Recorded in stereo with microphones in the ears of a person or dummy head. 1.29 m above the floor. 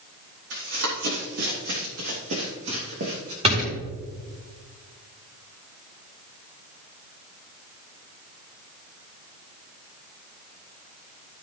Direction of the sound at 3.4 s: 30° right (ahead or behind).